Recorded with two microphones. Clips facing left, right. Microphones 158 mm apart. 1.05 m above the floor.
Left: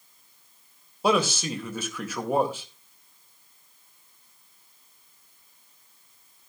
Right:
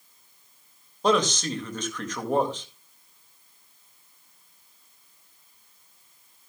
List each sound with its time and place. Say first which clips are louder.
1.0 s a man speaking: right 1 dB; 10° left (ahead or behind), 2.0 m